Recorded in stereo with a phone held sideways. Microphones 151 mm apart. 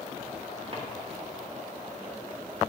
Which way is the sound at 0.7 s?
40° right (ahead or behind).